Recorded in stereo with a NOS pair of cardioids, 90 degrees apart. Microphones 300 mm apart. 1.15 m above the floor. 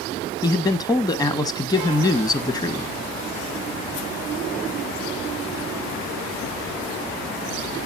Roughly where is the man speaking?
Ahead.